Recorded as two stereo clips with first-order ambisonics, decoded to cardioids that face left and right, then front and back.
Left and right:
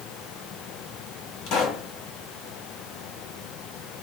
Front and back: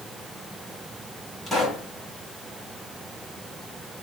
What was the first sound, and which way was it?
A pop, 90° left.